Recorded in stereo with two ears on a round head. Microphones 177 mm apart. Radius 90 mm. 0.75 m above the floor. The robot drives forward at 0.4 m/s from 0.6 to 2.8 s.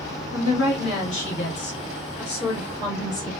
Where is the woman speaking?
50° left (ahead or behind), 1.6 m; by 3.3 s 35° left (ahead or behind), 2 m.